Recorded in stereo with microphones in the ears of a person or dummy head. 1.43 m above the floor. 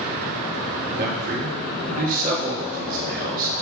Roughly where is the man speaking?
Right.